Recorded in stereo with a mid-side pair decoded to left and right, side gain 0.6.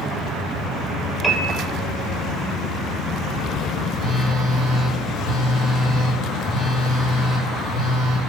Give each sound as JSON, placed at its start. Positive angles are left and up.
{"t": 1.2, "sound": "a piano", "azimuth_deg": 0, "distance_m": 2.5}
{"t": 3.9, "sound": "a phone buzzing", "azimuth_deg": -60, "distance_m": 3.5}